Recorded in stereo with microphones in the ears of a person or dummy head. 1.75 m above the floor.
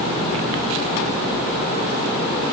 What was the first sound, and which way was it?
Only background noise.